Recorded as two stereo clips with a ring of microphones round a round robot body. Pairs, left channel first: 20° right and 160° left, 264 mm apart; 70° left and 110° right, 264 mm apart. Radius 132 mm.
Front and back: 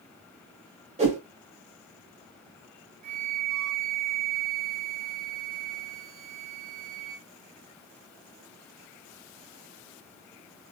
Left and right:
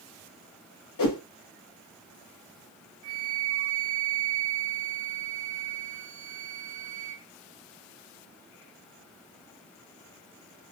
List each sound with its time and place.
1.0 s a whoosh: 90° left, 1.4 m
3.0 s a flute: 140° right, 1.1 m